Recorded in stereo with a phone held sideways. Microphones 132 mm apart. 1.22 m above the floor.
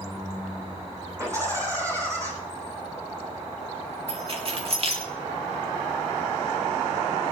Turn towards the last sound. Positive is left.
turn(degrees=-50)  # may be behind; listen again after turning